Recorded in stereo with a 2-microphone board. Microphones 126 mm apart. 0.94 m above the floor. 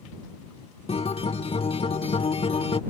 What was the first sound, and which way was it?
A guitar, 50° left (ahead or behind).